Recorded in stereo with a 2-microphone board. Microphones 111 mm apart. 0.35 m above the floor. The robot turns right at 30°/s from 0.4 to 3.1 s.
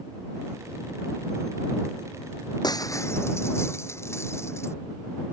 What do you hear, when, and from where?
2.6 s breaking glass: 35° left (ahead or behind); by 4.7 s 25° left (ahead or behind)